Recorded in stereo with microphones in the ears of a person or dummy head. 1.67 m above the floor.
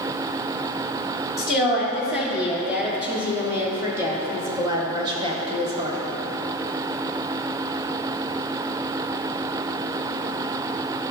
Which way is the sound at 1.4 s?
5° right (ahead or behind).